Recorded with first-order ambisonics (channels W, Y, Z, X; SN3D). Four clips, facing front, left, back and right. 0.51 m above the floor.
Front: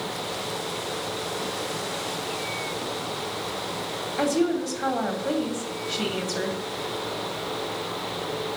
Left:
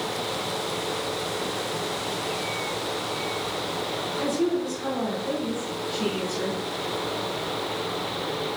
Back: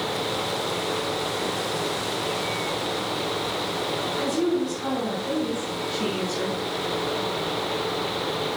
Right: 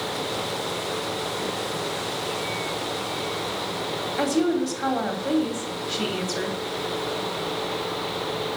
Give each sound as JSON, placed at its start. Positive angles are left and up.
{"t": 4.2, "sound": "a woman speaking", "azimuth_deg": -45, "distance_m": 2.5}